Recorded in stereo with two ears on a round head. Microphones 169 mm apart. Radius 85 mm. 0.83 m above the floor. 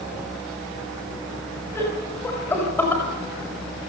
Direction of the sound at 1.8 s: 15° left (ahead or behind).